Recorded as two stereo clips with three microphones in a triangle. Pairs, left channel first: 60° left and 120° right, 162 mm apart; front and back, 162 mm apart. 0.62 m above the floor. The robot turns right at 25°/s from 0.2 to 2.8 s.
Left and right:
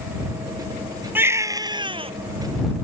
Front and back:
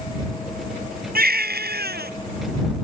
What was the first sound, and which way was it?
A baby crying, 160° left.